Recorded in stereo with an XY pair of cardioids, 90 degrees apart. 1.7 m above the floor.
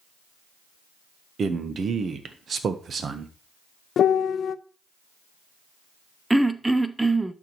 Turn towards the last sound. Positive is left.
turn(degrees=-10)